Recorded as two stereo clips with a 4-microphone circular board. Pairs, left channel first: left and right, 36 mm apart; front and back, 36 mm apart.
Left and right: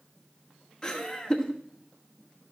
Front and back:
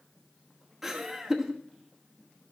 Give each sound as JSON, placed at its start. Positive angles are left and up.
{"t": 0.8, "sound": "laughter", "azimuth_deg": 105, "distance_m": 1.2}